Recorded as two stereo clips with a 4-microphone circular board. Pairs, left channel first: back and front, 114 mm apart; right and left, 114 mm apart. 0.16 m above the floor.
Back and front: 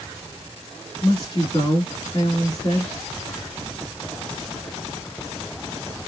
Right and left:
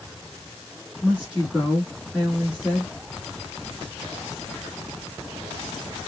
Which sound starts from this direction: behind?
A woman speaking, at 1.0 s.